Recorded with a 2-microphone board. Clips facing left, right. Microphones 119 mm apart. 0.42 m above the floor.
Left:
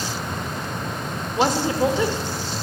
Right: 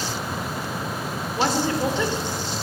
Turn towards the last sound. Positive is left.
turn(degrees=20)  # may be behind; listen again after turning